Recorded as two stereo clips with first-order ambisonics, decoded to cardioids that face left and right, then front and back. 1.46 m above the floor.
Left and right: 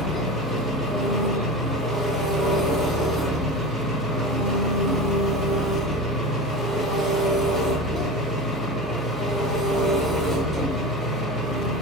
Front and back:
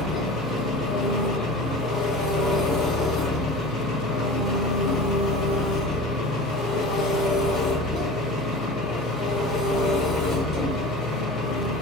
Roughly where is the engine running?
Ahead left.